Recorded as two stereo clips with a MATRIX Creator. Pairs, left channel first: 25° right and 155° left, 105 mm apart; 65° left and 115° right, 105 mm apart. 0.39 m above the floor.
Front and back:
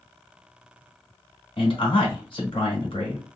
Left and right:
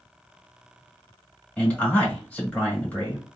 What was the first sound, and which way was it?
A man speaking, 5° right.